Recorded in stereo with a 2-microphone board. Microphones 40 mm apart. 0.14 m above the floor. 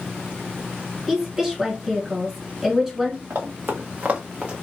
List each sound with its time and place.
1.1 s a woman speaking: 10° right (ahead or behind), 1.8 m
3.3 s running footsteps: 70° right (ahead or behind), 1.0 m; by 4.5 s 25° right (ahead or behind), 1.0 m